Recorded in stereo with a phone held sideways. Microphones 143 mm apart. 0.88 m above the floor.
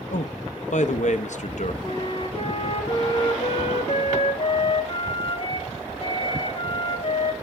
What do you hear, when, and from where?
0.1 s a man speaking: 65° left (ahead or behind), 0.9 m
1.8 s a flute: 45° left (ahead or behind), 1.7 m